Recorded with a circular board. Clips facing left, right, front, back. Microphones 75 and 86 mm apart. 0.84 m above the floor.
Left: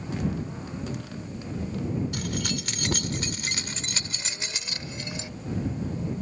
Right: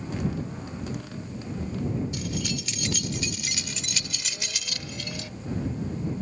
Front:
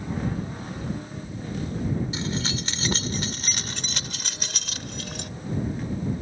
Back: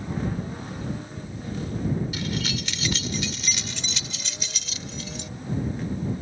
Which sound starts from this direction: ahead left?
Keys jangling, at 2.1 s.